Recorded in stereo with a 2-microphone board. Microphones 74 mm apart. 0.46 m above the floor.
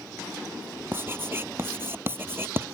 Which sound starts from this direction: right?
Writing, at 0.9 s.